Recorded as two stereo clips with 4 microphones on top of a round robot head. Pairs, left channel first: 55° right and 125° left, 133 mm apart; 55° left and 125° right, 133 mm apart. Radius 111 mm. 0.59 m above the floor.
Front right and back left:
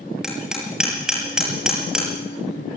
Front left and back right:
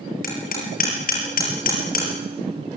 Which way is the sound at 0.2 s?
40° left.